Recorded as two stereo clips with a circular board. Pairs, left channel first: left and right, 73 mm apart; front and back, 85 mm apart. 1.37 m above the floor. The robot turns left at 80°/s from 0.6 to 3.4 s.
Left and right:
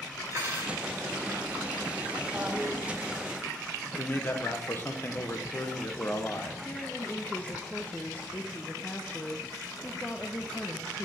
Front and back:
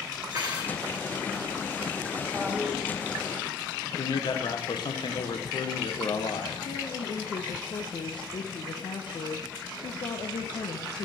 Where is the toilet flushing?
90° right, 0.8 m; by 2.8 s 125° right, 0.8 m.